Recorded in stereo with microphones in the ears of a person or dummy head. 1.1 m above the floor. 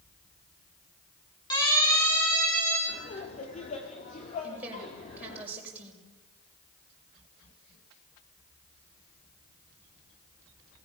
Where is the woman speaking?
5° right (ahead or behind), 5.5 m.